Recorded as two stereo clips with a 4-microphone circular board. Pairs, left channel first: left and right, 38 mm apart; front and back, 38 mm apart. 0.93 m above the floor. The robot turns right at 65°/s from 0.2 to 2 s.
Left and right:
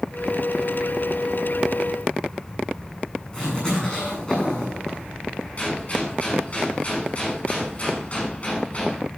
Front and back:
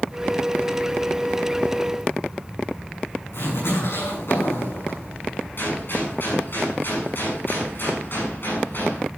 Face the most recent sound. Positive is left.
turn(degrees=35)